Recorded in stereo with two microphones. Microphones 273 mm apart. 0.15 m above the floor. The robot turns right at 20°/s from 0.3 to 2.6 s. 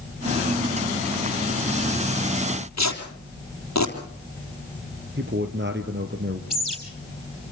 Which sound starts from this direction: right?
A man speaking, at 5.2 s.